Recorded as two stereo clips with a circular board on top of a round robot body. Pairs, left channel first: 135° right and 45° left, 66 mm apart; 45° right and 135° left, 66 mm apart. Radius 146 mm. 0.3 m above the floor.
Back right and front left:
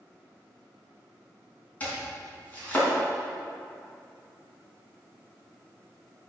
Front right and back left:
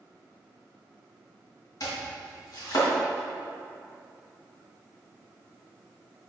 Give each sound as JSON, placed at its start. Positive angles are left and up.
{"t": 1.8, "sound": "chopping", "azimuth_deg": -70, "distance_m": 3.5}